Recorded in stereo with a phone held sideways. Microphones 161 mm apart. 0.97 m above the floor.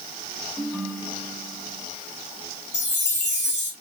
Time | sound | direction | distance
0.6 | a ringtone | 5° left (ahead or behind) | 5 m
2.7 | a chime | 45° left (ahead or behind) | 6 m